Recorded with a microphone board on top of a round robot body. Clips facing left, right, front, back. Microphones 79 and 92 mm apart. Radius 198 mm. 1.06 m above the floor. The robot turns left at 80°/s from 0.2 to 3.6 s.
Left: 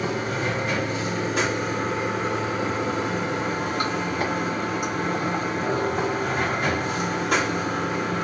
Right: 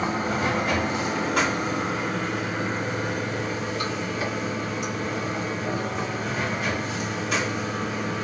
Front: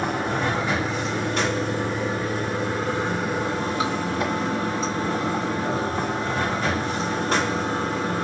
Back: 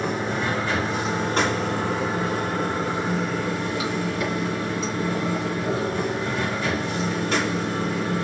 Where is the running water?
35° right, 1.2 m; by 8.3 s 50° left, 1.2 m.